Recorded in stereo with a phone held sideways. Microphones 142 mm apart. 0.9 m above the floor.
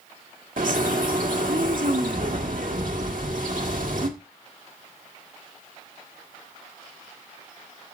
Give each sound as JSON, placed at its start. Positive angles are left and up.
{"t": 0.6, "sound": "a bird", "side_deg": -70, "distance_m": 1.4}